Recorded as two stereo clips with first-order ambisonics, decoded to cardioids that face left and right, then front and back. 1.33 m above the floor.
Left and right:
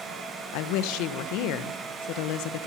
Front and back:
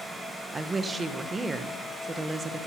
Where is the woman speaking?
105° left, 1.2 m.